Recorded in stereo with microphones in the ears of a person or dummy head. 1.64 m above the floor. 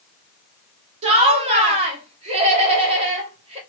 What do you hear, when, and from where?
1.0 s laughter: 30° right (ahead or behind), 1.5 m